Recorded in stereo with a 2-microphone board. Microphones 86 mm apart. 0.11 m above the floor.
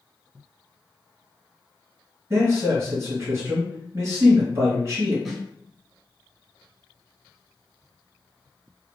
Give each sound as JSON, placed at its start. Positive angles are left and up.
{"t": 2.3, "sound": "a man speaking", "side_deg": -30, "distance_m": 1.9}
{"t": 5.2, "sound": "a snare drum", "side_deg": 0, "distance_m": 0.8}